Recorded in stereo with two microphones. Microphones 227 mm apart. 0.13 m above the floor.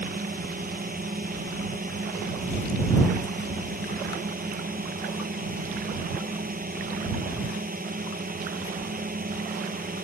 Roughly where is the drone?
Right.